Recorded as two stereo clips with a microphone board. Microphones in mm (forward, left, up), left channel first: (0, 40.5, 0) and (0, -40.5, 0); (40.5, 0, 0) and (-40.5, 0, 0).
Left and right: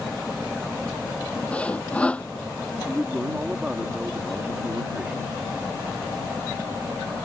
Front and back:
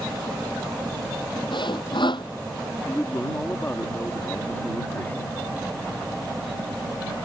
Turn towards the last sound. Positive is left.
turn(degrees=-25)